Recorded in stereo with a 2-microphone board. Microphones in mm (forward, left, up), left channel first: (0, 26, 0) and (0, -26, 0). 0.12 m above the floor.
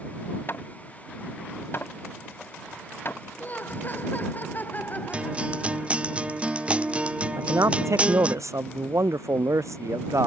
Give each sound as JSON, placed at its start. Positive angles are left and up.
{"t": 0.5, "sound": "hammering", "side_deg": 45}
{"t": 3.4, "sound": "laughter", "side_deg": 35}
{"t": 5.1, "sound": "a guitar", "side_deg": -20}
{"t": 7.4, "sound": "a man speaking", "side_deg": -70}